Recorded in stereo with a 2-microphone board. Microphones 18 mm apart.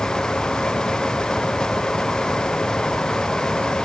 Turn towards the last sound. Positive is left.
No sound to turn to.